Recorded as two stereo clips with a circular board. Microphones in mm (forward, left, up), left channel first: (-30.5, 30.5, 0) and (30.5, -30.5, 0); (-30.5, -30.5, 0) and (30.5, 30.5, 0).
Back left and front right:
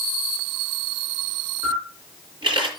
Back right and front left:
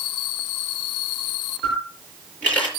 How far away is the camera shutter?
About 5 m.